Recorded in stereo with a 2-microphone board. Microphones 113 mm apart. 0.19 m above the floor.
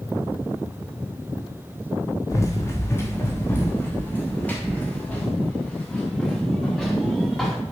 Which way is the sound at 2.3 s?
25° left (ahead or behind).